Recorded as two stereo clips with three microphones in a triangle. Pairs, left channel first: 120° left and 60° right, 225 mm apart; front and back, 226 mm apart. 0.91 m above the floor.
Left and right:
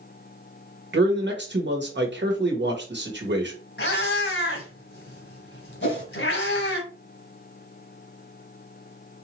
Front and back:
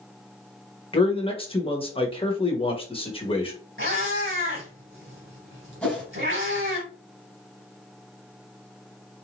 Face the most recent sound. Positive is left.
turn(degrees=85)